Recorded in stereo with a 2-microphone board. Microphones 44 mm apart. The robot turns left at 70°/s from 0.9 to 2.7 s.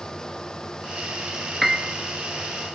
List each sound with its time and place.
1.6 s a piano: 5° right (ahead or behind), 1.1 m; by 1.9 s 25° right (ahead or behind), 1.1 m